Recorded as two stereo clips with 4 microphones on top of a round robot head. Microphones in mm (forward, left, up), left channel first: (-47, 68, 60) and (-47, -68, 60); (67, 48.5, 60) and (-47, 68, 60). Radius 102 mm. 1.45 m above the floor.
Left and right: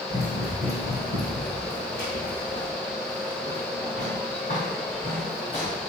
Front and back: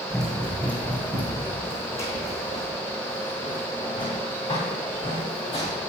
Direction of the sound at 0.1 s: 75° left.